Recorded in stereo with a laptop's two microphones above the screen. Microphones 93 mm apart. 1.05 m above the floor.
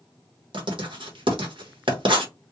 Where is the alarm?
No alarm in this recording.